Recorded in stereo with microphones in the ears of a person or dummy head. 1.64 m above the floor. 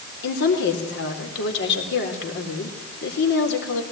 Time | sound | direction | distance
0.2 | a woman speaking | 70° left (ahead or behind) | 4 m